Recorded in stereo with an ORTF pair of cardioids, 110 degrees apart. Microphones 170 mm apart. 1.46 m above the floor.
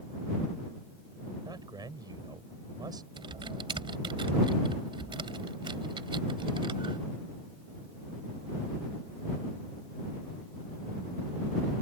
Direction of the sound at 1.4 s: 25° right.